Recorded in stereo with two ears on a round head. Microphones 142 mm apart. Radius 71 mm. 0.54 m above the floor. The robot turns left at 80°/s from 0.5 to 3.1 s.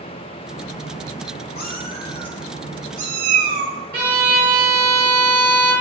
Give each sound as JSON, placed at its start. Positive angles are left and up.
{"t": 1.6, "sound": "a cat meowing", "azimuth_deg": 70, "distance_m": 0.9}
{"t": 3.9, "sound": "a violin", "side_deg": -70, "distance_m": 2.5}